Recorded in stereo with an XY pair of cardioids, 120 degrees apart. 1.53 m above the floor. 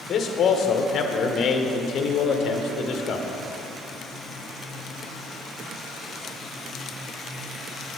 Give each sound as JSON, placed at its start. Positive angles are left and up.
{"t": 0.1, "sound": "a man speaking", "azimuth_deg": 50, "distance_m": 1.0}